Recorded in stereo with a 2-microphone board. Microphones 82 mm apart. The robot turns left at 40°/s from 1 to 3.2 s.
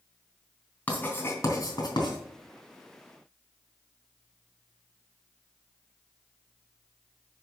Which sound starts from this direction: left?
Writing, at 0.9 s.